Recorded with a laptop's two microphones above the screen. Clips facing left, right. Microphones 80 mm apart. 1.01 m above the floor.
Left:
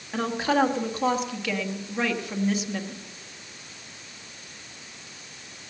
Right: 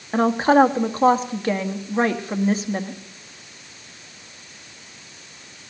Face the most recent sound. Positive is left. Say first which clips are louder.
# right 8 dB
turn(degrees=-35)  # may be behind; listen again after turning